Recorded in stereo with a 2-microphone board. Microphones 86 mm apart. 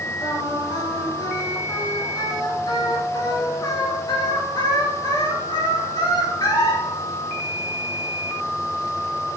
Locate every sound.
0.2 s singing: 55° left (ahead or behind), 3.5 m